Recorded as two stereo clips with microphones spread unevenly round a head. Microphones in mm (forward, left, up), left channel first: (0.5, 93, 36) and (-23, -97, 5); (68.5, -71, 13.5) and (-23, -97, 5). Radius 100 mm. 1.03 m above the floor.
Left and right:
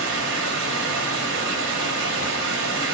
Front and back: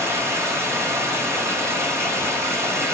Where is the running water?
100° right, 1.9 m.